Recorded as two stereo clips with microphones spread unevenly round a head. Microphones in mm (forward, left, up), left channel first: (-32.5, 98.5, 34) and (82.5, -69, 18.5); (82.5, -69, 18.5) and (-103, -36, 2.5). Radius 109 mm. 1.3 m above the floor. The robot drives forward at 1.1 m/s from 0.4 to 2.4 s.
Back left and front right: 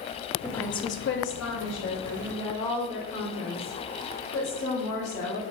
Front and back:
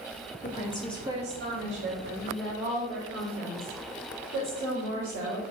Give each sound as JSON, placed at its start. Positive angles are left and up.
{"t": 0.4, "sound": "a woman speaking", "azimuth_deg": 35, "distance_m": 0.8}